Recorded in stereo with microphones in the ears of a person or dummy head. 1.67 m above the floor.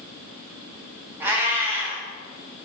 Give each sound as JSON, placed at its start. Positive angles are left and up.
{"t": 1.2, "sound": "a cat meowing", "side_deg": -10, "distance_m": 1.7}